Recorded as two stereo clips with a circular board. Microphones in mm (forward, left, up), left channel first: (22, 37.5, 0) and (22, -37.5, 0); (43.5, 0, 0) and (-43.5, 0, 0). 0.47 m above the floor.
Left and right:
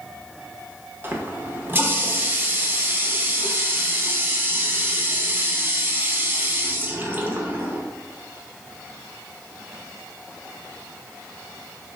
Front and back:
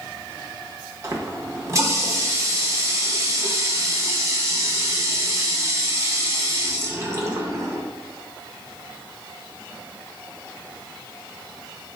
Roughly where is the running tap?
Behind right.